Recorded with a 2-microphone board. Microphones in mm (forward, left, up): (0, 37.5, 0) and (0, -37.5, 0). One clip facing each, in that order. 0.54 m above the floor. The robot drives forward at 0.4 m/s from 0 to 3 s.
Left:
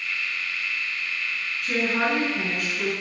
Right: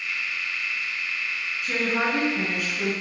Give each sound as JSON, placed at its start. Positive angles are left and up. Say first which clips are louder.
{"t": 1.6, "sound": "a woman speaking", "louder": "left 1 dB", "side_deg": 0, "distance_m": 7.5}